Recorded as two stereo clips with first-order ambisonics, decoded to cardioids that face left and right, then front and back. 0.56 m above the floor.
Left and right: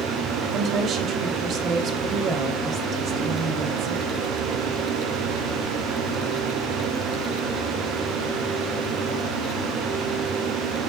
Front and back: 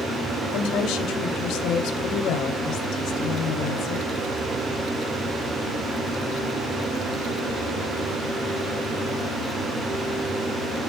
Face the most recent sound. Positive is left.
turn(degrees=-35)